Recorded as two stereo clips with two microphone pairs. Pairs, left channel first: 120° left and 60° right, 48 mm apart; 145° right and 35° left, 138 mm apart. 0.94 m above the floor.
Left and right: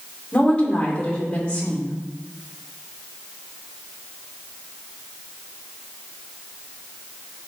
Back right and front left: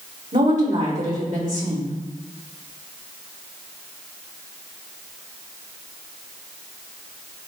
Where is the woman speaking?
50° left, 3 m.